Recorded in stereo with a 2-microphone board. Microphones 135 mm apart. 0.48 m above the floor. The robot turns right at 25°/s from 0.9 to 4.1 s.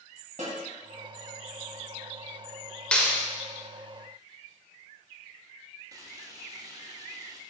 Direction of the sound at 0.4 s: 65° right (ahead or behind).